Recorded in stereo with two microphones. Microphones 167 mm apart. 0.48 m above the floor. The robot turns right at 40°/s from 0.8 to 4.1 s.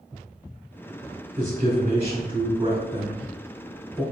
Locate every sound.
1.4 s a man speaking: 45° right (ahead or behind), 1.0 m; by 4.0 s 5° left (ahead or behind), 1.0 m